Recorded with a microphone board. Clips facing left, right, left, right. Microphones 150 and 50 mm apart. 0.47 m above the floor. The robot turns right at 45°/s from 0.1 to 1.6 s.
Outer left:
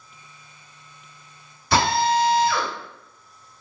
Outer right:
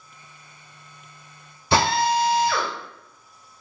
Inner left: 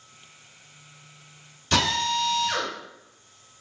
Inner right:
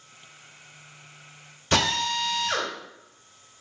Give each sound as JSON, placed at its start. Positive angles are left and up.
{"t": 1.7, "sound": "a drill", "side_deg": -25, "distance_m": 1.8}